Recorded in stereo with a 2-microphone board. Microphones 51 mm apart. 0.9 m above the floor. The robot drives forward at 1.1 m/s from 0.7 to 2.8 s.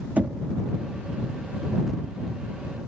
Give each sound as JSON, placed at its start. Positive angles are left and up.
{"t": 0.2, "sound": "knocking", "side_deg": -35}